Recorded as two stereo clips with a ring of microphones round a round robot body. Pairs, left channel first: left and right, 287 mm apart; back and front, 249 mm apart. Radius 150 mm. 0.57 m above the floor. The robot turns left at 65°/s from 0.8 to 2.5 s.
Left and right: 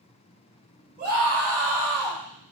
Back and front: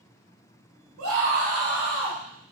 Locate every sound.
1.0 s a scream: 30° right, 2.5 m; by 2.2 s 110° right, 2.5 m